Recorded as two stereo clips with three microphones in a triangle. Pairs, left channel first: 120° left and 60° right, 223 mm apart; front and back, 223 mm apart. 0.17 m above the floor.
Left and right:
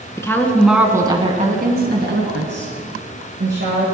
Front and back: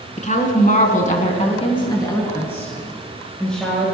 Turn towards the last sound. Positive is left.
turn(degrees=-90)